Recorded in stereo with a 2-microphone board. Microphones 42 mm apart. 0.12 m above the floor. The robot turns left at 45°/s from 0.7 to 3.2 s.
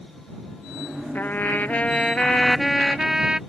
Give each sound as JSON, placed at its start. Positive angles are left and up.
{"t": 1.1, "sound": "a trumpet", "azimuth_deg": 75}